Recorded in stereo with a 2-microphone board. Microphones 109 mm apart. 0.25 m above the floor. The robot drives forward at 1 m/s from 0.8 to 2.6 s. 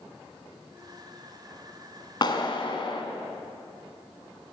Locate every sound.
2.2 s a clap: 45° left (ahead or behind), 2.0 m; by 3.0 s 50° left (ahead or behind), 1.8 m